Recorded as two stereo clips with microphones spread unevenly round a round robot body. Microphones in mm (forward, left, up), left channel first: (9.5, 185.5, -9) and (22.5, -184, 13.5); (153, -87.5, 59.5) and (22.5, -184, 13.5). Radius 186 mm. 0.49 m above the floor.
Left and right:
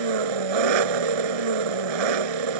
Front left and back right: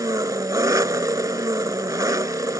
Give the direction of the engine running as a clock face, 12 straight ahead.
2 o'clock.